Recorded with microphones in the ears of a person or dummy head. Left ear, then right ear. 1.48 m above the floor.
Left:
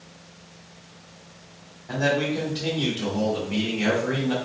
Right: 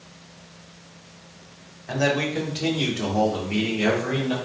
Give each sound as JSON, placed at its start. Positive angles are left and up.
{"t": 1.9, "sound": "a man speaking", "side_deg": -75, "distance_m": 1.6}